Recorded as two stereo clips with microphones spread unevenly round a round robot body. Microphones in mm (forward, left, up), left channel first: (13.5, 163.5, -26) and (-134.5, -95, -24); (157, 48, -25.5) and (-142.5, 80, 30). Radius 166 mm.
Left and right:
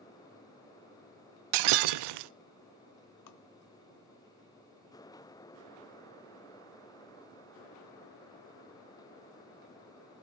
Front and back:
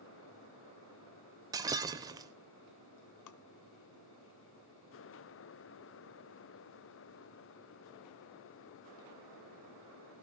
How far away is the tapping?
About 0.9 m.